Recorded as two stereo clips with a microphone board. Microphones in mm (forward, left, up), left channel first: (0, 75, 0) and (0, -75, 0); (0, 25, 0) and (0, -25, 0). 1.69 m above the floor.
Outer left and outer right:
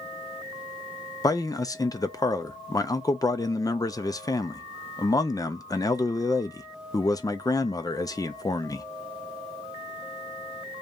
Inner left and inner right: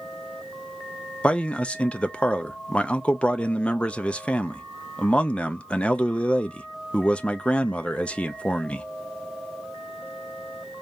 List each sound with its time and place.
1.2 s a man speaking: 25° left (ahead or behind), 0.5 m